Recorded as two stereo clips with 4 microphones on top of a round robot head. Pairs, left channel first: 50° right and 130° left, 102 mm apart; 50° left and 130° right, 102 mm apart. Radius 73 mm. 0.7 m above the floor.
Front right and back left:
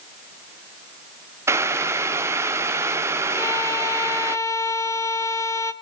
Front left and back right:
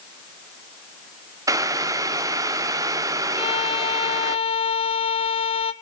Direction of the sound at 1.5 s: 175° right.